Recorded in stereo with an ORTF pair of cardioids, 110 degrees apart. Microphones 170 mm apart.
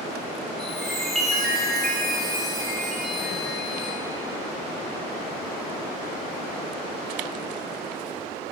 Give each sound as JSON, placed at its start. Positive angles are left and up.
{"t": 0.6, "sound": "a chime", "azimuth_deg": 0, "distance_m": 2.5}